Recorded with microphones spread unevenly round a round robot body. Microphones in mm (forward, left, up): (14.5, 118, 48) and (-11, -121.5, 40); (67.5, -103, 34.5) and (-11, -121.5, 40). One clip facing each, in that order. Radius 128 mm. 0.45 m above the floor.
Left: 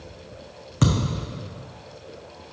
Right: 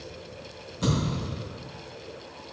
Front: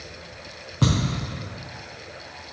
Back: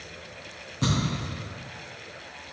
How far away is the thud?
About 1.7 m.